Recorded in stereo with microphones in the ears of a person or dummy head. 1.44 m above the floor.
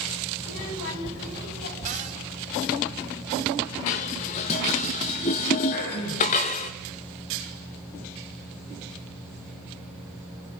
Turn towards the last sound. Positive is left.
turn(degrees=55)  # may be behind; listen again after turning